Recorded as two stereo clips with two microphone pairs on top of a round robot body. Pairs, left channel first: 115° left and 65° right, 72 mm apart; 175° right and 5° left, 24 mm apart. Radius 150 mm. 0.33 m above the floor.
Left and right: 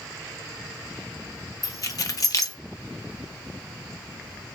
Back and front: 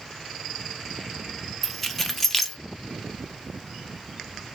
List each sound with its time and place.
1.6 s keys jangling: 105° left, 1.0 m